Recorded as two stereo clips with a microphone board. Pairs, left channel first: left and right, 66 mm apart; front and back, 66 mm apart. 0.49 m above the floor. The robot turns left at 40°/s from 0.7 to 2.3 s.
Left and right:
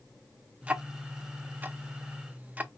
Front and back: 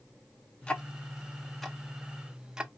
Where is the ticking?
50° right, 0.6 m; by 2.7 s 115° right, 0.6 m.